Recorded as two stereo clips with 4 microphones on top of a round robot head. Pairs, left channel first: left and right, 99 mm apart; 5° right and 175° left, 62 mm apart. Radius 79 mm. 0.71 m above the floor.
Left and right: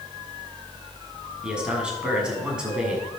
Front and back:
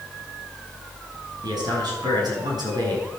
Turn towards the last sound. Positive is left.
turn(degrees=-170)